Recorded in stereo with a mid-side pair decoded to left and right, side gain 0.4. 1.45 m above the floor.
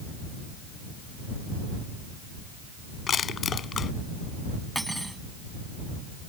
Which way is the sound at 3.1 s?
55° left.